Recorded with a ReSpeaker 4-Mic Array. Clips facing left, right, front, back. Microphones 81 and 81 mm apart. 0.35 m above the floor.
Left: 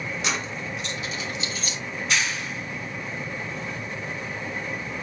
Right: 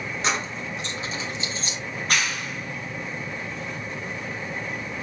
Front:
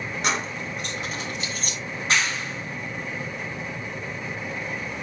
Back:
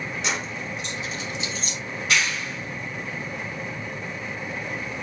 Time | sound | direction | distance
0.2 | keys jangling | 40° right | 3 m
1.9 | a clap | 55° right | 3 m